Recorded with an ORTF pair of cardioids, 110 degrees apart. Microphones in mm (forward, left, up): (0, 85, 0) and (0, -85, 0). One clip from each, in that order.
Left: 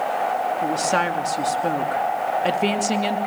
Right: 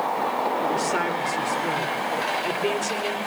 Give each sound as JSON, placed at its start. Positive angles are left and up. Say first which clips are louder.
{"t": 0.6, "sound": "a woman speaking", "louder": "left 3 dB", "azimuth_deg": 70, "distance_m": 3.0}